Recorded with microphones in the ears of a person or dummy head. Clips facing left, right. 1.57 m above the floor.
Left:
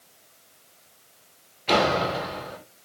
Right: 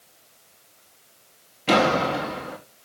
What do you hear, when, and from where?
1.7 s a door slam: 55° right (ahead or behind), 1.9 m